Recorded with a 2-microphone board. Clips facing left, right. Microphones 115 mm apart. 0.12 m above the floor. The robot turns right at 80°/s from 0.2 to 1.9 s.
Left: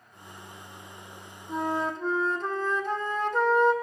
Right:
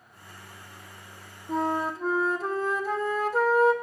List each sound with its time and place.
1.5 s a flute: 40° right, 0.8 m; by 3.7 s 5° right, 0.8 m